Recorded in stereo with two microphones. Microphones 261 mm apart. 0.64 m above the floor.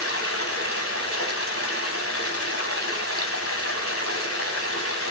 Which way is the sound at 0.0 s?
60° left (ahead or behind).